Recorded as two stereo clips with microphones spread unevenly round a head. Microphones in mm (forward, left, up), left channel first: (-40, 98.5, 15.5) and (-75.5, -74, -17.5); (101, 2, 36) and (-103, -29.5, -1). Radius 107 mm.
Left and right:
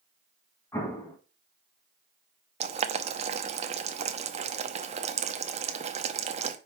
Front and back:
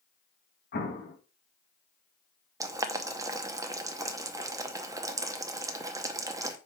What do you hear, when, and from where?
0.7 s an explosion: 15° left, 1.7 m
2.6 s boiling: 95° right, 0.7 m